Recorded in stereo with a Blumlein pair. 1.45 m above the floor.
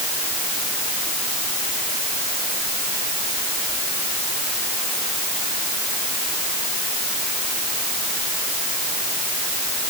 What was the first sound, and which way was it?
Only background noise.